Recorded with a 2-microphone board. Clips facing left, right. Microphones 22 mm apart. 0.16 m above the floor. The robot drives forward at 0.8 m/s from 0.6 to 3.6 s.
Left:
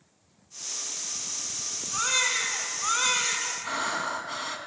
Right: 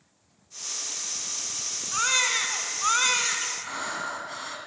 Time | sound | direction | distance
1.9 | a baby crying | 15° right (ahead or behind) | 0.8 m
3.6 | breathing | 20° left (ahead or behind) | 0.6 m